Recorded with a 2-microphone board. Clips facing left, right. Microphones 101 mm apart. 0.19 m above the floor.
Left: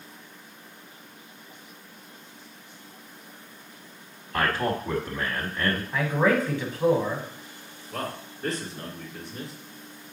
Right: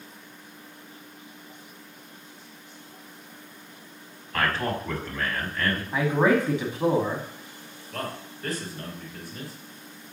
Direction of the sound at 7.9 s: 25° left (ahead or behind).